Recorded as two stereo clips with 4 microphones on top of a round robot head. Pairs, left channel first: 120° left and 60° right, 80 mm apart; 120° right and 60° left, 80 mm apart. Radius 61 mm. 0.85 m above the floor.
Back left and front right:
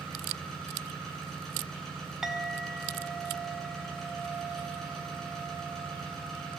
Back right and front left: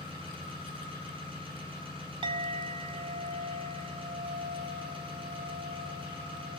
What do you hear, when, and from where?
0.0 s an engine running: 35° left, 9 m
2.2 s a clink: 25° left, 1.7 m